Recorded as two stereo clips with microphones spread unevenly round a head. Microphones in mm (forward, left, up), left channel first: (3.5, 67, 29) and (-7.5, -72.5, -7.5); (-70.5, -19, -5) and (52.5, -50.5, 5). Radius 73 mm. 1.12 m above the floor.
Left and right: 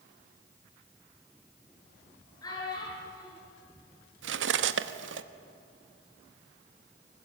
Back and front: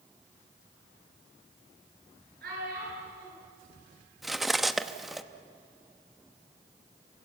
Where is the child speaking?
20° left, 9.5 m.